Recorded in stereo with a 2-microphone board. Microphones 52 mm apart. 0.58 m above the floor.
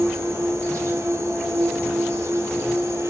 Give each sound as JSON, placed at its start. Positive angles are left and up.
{"t": 0.0, "sound": "an insect", "side_deg": -65, "distance_m": 1.1}